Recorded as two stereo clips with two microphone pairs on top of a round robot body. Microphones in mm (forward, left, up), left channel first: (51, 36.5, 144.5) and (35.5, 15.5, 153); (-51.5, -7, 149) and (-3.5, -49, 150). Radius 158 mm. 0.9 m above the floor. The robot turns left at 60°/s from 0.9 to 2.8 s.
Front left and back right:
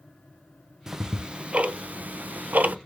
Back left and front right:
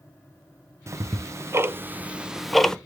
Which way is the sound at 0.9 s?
35° right.